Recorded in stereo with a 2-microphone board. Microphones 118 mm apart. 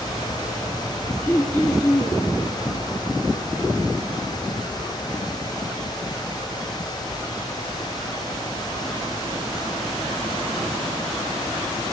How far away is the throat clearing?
About 4.5 m.